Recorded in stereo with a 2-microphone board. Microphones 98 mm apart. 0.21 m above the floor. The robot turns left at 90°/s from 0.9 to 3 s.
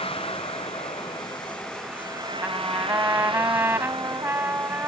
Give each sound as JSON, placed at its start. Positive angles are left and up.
{"t": 0.0, "sound": "a vehicle", "azimuth_deg": 75}
{"t": 2.4, "sound": "a trumpet", "side_deg": -20}